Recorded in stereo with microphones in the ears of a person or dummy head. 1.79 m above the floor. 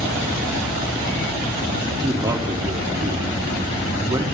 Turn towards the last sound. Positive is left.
turn(degrees=-25)  # may be behind; listen again after turning